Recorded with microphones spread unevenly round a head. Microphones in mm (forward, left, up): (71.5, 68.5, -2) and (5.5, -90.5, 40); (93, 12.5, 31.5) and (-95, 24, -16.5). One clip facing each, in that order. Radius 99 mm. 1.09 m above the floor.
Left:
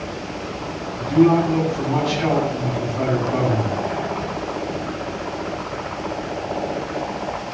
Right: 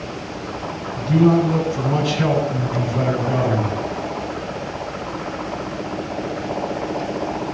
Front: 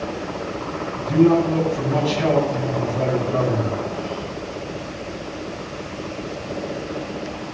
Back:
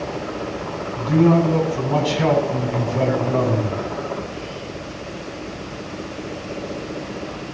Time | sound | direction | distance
1.0 | a man speaking | 155° right | 8 m